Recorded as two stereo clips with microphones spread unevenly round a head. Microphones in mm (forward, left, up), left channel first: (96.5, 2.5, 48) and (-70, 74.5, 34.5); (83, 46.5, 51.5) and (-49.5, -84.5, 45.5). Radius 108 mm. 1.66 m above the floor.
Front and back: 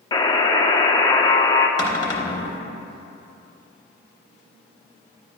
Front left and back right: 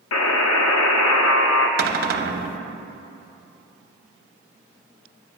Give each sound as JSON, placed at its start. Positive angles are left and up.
{"t": 0.1, "sound": "a buzzer", "azimuth_deg": 40, "distance_m": 0.5}
{"t": 1.8, "sound": "a cupboard door", "azimuth_deg": -95, "distance_m": 0.6}